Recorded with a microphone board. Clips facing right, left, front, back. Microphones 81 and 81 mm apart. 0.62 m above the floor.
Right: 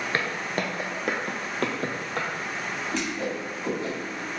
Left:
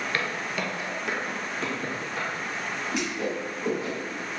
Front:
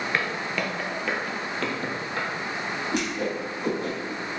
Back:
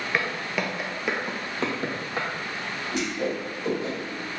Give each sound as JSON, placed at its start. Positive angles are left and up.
{"t": 0.1, "sound": "footsteps", "azimuth_deg": -95, "distance_m": 0.6}
{"t": 2.9, "sound": "a whoosh", "azimuth_deg": 10, "distance_m": 1.5}